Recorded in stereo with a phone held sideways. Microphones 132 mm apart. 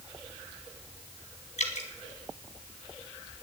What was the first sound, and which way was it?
Dripping, 75° left (ahead or behind).